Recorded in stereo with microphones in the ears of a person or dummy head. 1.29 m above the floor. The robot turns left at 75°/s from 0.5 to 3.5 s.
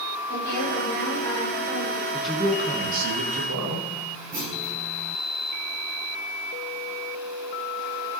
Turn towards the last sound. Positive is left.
turn(degrees=-45)  # may be behind; listen again after turning